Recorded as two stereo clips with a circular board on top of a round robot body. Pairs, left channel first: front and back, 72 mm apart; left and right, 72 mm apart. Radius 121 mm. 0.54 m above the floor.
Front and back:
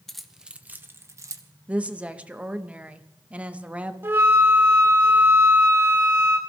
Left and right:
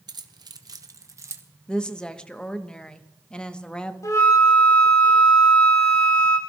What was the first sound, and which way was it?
Keys jangling, 85° right.